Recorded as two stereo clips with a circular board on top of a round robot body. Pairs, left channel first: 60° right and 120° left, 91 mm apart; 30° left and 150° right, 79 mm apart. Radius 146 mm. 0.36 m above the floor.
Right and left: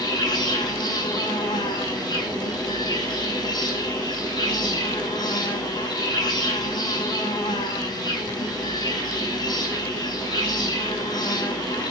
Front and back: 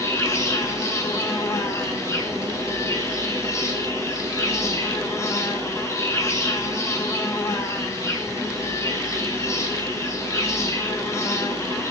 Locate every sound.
0.0 s an insect: 25° right, 5 m